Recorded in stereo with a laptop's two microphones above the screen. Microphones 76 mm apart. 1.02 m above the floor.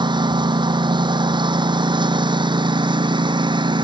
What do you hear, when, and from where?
0.0 s a lawn mower: 75° right (ahead or behind); by 3.8 s 85° right